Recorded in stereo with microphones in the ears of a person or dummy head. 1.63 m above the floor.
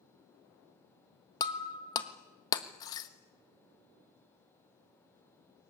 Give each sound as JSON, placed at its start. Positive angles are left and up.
{"t": 1.4, "sound": "breaking glass", "side_deg": 25, "distance_m": 1.3}